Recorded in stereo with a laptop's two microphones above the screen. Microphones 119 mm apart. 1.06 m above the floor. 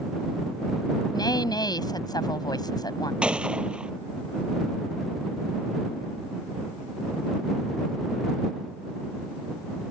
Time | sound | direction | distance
1.1 | a woman speaking | 30° left (ahead or behind) | ?
3.2 | a gunshot | 10° right (ahead or behind) | ?